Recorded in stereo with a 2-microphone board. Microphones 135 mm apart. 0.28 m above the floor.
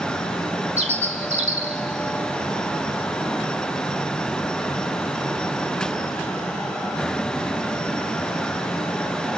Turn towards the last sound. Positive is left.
turn(degrees=-60)  # may be behind; listen again after turning